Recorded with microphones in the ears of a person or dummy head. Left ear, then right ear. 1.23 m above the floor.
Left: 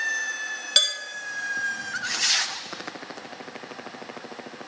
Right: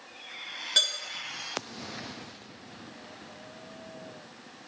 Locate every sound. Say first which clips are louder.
0.8 s dishes clattering: left 4 dB; 30° left (ahead or behind), 1.9 m